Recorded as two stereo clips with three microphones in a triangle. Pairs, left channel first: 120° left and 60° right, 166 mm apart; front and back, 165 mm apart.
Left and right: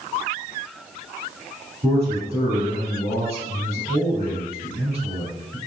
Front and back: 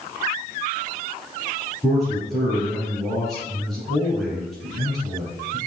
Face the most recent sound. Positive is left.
turn(degrees=-85)